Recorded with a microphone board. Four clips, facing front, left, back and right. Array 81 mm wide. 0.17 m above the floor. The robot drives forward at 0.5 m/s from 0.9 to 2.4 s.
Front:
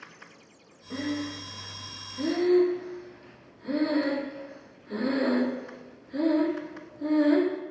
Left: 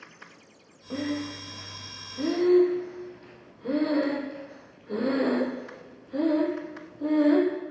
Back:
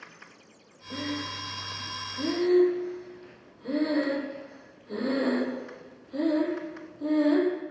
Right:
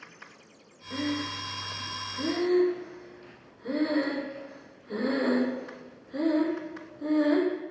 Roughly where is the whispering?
I don't hear whispering.